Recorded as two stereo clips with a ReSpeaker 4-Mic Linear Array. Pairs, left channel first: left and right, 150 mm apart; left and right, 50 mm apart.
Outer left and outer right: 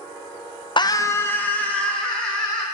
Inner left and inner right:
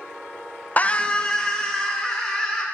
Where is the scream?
30° left (ahead or behind), 0.5 m; by 2.6 s 5° left (ahead or behind), 2.5 m.